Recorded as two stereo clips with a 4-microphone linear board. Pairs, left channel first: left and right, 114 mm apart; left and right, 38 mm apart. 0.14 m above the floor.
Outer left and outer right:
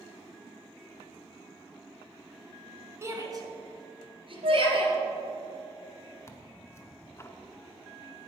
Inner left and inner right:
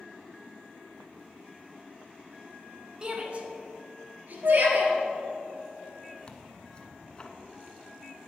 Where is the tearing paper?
25° left (ahead or behind), 0.7 m.